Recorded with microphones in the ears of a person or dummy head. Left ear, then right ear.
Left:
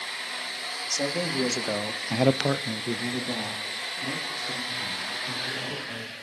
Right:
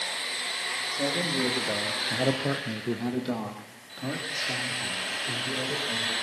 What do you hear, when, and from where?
0.9 s a man speaking: 55° left (ahead or behind), 2.5 m; by 6.1 s 35° right (ahead or behind), 6 m